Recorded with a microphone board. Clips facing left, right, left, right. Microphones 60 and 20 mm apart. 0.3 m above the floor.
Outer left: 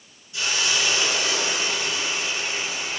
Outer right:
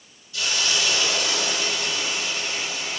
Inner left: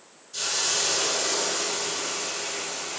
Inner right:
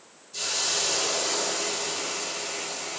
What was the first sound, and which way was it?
A hiss, 30° left (ahead or behind).